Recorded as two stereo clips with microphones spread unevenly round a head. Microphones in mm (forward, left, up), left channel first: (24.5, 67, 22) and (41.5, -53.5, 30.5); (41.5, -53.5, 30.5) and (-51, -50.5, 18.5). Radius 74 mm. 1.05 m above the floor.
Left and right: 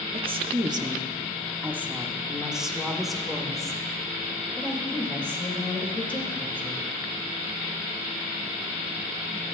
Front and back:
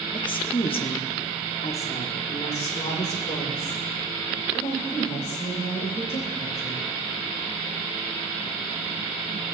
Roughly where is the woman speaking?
Ahead right.